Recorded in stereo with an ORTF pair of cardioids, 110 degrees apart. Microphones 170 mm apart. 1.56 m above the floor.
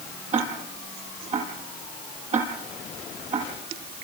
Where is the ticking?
40° right, 7.5 m.